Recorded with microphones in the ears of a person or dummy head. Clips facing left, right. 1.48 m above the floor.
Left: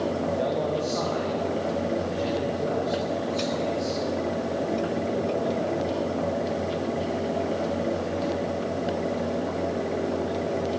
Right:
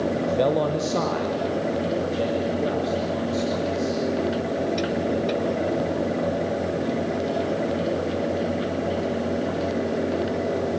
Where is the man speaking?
75° right (ahead or behind), 0.9 m; by 5.6 s 70° right (ahead or behind), 5 m.